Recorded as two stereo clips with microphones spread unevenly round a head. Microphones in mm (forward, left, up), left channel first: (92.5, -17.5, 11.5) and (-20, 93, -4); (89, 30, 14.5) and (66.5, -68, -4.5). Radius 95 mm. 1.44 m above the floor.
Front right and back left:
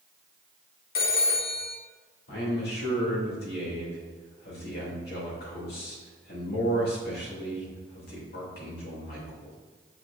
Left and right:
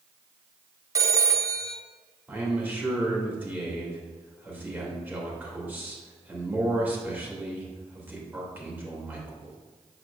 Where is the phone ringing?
40° right, 0.9 m.